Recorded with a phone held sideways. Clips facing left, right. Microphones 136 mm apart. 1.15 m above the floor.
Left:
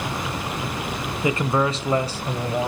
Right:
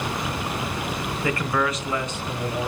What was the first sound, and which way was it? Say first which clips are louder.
A man speaking: left 3 dB; 15° left (ahead or behind).